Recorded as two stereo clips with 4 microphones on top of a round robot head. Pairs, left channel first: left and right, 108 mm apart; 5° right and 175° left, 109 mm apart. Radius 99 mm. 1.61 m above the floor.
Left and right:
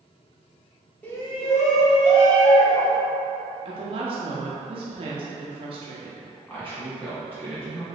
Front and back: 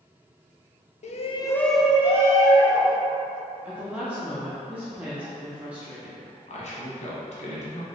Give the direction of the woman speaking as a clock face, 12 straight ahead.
3 o'clock.